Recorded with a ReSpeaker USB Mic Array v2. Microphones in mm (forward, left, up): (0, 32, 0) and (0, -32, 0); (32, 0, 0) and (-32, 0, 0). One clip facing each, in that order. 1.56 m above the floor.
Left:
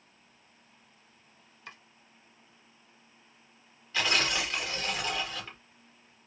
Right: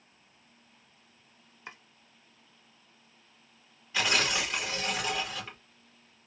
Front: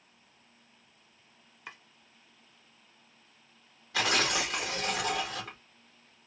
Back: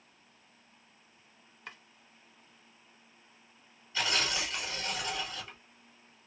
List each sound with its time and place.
1.7 s chopping: 75° right, 1.3 m
3.9 s tearing paper: 10° right, 2.5 m